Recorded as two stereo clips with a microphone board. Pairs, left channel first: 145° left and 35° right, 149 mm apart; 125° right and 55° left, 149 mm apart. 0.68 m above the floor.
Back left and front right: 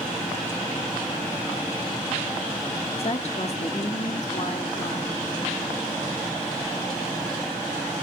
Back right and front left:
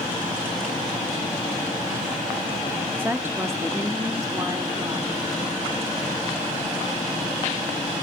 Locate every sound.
3.0 s a woman speaking: 130° left, 1.0 m; by 5.2 s 115° left, 2.0 m